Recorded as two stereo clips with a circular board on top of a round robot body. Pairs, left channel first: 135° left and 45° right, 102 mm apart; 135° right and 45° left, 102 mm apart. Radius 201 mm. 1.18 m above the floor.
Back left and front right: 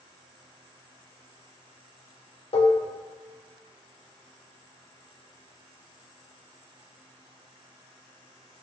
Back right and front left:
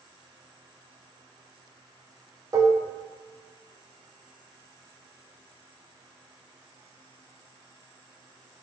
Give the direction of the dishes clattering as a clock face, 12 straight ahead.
8 o'clock.